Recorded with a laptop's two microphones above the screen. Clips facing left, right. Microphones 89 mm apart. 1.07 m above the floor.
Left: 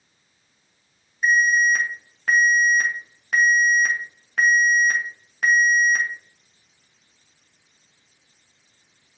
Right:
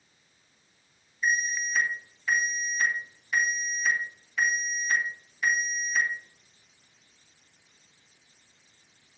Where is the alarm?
60° left (ahead or behind), 1.3 m.